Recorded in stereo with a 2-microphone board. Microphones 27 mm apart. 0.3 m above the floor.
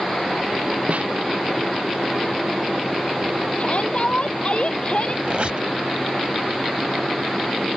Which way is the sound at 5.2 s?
50° right (ahead or behind).